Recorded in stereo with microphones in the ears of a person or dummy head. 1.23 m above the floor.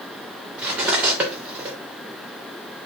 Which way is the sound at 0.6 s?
10° right (ahead or behind).